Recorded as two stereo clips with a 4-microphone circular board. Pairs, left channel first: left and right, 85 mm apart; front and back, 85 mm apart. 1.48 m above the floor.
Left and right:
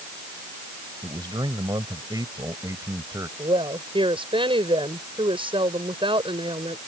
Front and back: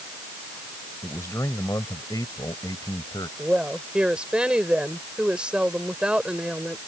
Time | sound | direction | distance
1.0 | a man speaking | 60° right | ?
3.4 | a woman speaking | 100° right | ?